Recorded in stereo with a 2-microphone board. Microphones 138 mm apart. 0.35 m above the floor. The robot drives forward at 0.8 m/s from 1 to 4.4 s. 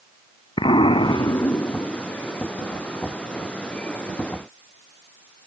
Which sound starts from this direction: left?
An explosion, at 0.6 s.